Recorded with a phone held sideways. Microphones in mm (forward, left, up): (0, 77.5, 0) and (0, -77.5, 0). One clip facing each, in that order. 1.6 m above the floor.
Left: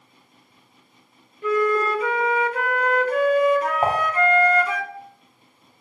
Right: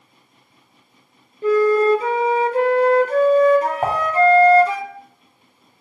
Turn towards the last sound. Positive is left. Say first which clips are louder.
# even
turn(degrees=0)  # may be behind; listen again after turning